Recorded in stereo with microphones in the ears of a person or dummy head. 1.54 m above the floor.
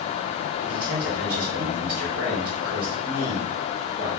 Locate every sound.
0.6 s a man speaking: 75° right (ahead or behind), 1.6 m